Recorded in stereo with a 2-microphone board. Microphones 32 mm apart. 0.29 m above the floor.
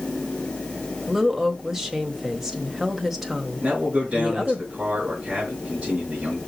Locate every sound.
1.1 s a woman speaking: 10° right (ahead or behind), 1.2 m
3.6 s a man speaking: 40° right (ahead or behind), 4 m